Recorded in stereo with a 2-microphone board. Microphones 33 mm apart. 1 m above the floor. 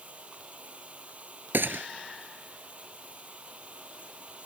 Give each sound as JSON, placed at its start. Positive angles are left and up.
{"t": 0.0, "sound": "running water", "side_deg": -40}
{"t": 1.5, "sound": "a gunshot", "side_deg": -80}